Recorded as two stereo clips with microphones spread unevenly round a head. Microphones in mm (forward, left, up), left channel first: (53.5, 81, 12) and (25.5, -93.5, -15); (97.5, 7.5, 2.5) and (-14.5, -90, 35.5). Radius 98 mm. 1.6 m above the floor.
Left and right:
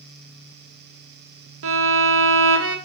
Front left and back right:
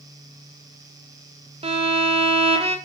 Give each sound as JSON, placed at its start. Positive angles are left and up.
{"t": 1.6, "sound": "a violin", "azimuth_deg": -90, "distance_m": 2.0}